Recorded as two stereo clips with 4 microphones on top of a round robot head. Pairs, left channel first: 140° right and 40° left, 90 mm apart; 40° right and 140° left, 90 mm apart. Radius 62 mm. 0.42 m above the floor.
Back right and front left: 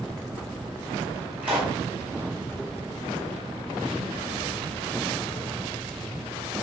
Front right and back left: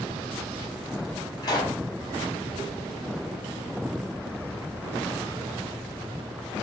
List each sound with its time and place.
1.4 s a pop: 30° right, 1.7 m